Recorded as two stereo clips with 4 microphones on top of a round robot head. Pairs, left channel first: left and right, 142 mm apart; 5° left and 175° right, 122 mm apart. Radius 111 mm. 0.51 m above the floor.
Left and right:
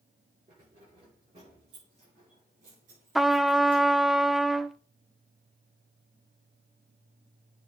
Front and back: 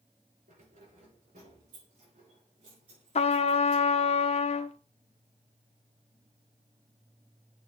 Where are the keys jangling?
145° right, 7 m; by 3.8 s 120° right, 6 m.